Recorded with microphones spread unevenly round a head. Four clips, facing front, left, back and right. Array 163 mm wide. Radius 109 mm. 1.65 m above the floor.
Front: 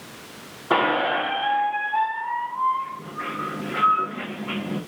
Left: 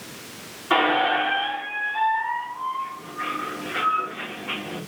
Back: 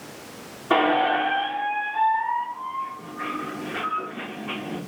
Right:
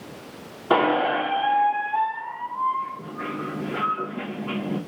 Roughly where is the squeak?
Right.